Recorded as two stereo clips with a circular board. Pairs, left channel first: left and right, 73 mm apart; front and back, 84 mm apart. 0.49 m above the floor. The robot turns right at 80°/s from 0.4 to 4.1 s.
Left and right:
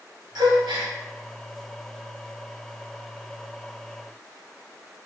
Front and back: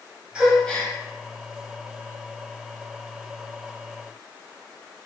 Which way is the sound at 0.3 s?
100° right.